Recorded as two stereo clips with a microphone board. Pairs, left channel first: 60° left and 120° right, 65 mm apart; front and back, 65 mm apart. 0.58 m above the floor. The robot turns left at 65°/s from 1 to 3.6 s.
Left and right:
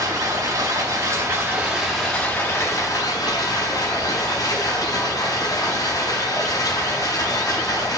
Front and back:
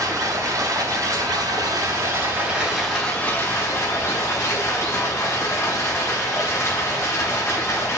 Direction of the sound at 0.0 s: 145° right.